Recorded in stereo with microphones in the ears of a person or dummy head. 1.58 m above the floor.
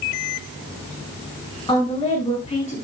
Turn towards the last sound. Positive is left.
turn(degrees=30)  # may be behind; listen again after turning